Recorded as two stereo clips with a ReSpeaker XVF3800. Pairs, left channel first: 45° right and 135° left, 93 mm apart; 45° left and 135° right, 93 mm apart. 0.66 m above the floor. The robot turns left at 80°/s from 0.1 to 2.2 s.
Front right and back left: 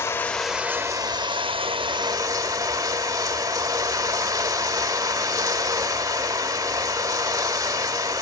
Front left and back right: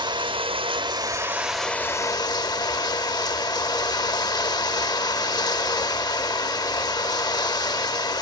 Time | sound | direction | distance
0.0 | running water | 105° right | 0.7 m